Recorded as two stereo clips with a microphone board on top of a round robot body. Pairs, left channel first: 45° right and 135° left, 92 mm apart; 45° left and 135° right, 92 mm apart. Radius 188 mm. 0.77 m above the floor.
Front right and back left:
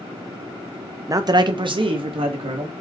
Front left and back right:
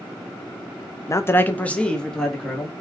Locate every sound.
1.1 s a man speaking: 90° left, 0.7 m; by 2.7 s 135° left, 1.6 m